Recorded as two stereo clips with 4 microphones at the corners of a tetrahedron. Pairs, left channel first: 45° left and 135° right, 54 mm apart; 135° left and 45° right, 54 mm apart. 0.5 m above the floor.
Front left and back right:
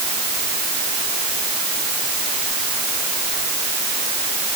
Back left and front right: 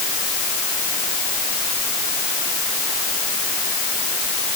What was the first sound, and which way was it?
Only background noise.